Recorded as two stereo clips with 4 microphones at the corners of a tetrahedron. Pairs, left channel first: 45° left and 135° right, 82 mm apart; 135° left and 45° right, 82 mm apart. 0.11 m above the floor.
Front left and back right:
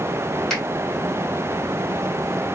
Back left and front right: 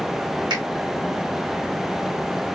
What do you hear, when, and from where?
0.5 s a finger snap: 35° right, 3 m